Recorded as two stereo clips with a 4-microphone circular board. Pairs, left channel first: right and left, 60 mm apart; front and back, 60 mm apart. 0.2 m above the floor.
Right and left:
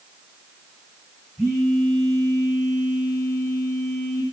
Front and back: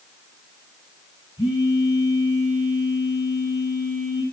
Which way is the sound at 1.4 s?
5° right.